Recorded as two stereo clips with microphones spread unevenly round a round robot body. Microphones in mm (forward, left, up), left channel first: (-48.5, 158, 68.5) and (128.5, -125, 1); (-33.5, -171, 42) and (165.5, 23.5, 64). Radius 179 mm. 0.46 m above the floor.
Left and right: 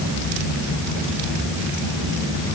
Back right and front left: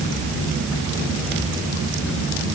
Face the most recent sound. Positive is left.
No sound to turn to.